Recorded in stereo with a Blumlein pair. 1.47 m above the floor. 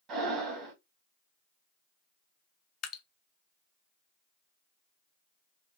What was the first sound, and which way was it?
Breathing, 30° right.